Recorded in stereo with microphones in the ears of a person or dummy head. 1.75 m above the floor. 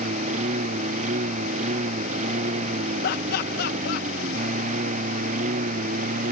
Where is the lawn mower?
40° right (ahead or behind).